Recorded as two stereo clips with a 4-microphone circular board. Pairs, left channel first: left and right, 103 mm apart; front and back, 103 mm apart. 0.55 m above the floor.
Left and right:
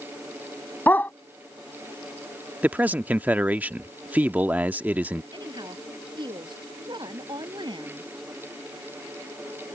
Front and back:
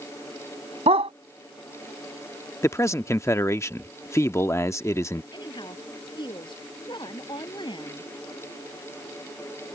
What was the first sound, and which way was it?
A dog barking, 160° left.